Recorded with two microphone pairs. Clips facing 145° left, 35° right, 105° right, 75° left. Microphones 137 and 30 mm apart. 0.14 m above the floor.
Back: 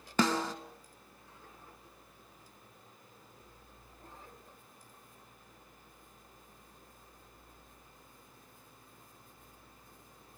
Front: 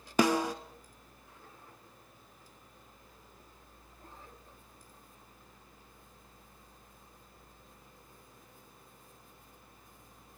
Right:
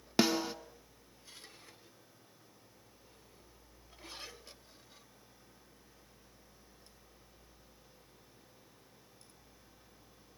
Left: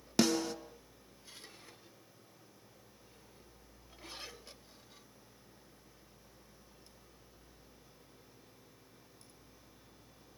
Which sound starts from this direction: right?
A snare drum, at 0.2 s.